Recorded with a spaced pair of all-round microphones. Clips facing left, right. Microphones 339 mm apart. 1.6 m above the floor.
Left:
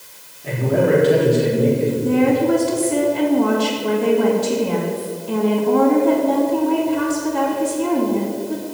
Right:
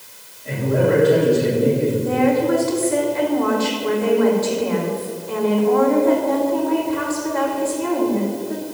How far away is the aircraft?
No aircraft in this recording.